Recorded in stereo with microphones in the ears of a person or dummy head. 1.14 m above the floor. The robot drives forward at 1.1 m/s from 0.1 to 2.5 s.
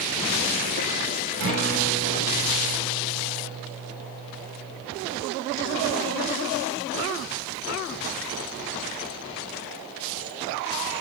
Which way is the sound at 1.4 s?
60° right (ahead or behind).